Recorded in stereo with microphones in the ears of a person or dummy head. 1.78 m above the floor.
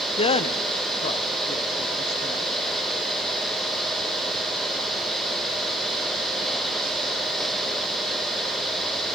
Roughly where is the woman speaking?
Left.